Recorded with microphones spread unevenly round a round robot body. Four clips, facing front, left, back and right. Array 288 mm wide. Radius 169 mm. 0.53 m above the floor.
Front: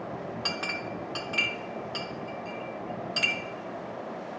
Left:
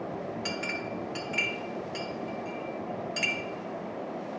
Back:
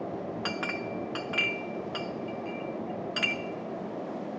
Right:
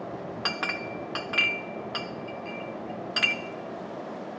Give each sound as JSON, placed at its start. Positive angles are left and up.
{"t": 0.5, "sound": "a clink", "azimuth_deg": -75, "distance_m": 0.7}